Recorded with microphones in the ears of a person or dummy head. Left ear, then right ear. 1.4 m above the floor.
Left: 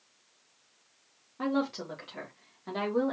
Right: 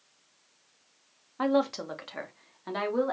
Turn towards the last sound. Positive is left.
turn(degrees=-40)  # may be behind; listen again after turning